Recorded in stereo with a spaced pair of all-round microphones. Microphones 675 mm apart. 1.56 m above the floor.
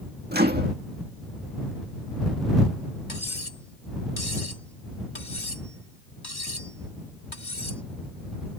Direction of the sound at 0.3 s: 15° right (ahead or behind).